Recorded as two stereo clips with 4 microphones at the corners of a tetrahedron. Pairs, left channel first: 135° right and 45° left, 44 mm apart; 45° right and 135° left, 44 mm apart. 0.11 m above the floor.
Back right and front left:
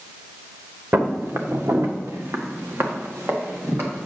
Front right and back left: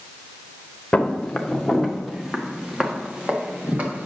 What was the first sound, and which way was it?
Footsteps, 20° left.